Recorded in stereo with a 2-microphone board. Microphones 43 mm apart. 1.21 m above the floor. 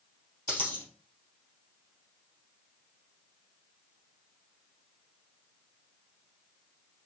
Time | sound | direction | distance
0.5 | a dropped coin | 45° left (ahead or behind) | 2.5 m